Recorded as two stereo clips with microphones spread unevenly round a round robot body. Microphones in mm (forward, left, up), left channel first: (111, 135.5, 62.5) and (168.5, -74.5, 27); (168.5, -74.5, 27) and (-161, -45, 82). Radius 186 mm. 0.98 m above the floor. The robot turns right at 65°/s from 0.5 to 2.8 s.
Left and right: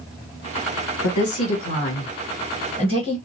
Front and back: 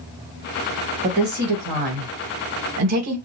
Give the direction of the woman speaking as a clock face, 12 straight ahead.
8 o'clock.